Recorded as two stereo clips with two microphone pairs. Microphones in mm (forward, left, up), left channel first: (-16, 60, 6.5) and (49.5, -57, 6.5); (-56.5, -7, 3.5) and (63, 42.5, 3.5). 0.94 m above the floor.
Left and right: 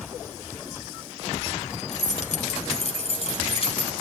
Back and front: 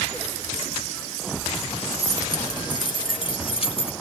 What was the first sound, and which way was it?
Keys jangling, 140° left.